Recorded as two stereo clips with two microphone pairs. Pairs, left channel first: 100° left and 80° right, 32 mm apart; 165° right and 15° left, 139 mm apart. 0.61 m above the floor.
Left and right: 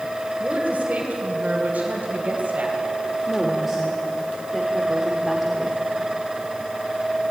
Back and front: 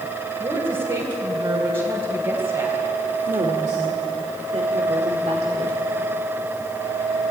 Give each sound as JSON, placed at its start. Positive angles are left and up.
{"t": 0.4, "sound": "a woman speaking", "azimuth_deg": -35, "distance_m": 3.0}
{"t": 3.3, "sound": "a woman speaking", "azimuth_deg": 10, "distance_m": 2.0}